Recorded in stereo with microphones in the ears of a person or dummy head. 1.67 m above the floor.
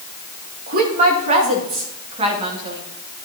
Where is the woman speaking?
50° right (ahead or behind), 2.5 m; by 2.8 s 20° right (ahead or behind), 3 m.